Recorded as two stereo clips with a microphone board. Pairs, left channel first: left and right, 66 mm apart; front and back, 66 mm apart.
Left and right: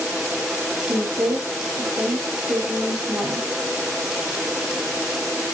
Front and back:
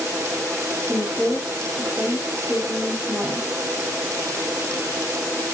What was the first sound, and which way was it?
A woman speaking, 90° right.